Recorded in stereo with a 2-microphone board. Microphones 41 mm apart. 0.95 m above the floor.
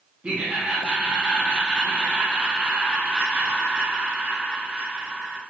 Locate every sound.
0.2 s laughter: 30° right (ahead or behind), 0.8 m